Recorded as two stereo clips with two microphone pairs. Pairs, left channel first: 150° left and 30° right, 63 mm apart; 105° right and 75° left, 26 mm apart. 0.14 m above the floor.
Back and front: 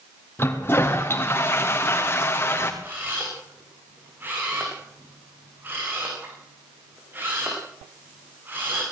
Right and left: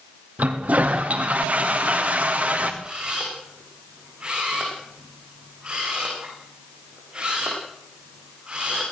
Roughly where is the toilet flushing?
Left.